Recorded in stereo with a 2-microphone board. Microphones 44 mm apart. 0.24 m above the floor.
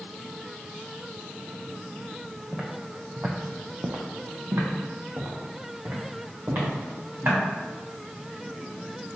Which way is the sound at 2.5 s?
5° right (ahead or behind).